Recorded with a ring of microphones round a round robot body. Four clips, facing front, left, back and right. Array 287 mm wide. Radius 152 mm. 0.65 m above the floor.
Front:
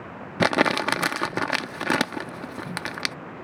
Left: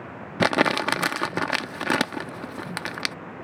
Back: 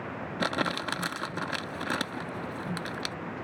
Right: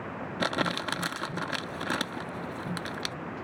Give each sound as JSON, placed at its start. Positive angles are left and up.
{"t": 0.4, "sound": "crumpling", "azimuth_deg": 45}